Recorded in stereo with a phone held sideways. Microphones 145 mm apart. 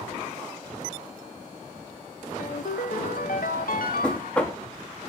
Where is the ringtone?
75° left (ahead or behind), 0.9 m.